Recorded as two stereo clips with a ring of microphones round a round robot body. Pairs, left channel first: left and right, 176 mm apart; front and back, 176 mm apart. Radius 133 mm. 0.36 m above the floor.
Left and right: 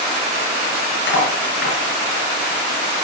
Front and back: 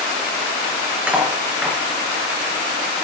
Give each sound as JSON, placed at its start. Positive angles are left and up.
{"t": 1.1, "sound": "cutlery clinking", "azimuth_deg": 95, "distance_m": 4.5}